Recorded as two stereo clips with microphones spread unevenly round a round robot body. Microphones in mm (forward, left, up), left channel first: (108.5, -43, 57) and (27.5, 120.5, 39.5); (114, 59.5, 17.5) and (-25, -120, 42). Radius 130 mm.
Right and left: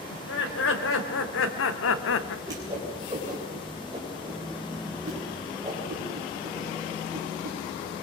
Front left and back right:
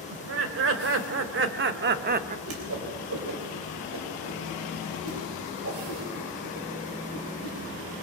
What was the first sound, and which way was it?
Laughter, 100° right.